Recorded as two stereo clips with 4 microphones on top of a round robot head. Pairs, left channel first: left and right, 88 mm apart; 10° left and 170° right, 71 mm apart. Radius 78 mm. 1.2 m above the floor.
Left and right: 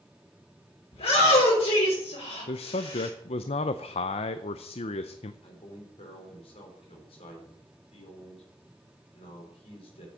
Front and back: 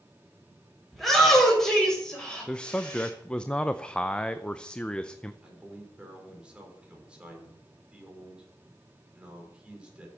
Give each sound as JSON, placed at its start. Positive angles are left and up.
{"t": 0.9, "sound": "a shout", "azimuth_deg": 100, "distance_m": 4.0}
{"t": 2.5, "sound": "a man speaking", "azimuth_deg": 85, "distance_m": 0.5}
{"t": 5.4, "sound": "a man speaking", "azimuth_deg": 110, "distance_m": 4.0}